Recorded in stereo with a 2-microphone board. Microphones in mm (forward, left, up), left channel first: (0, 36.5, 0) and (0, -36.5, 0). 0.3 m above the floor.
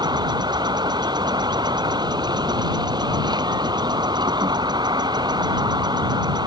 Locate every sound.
0.0 s an insect: 75° right (ahead or behind)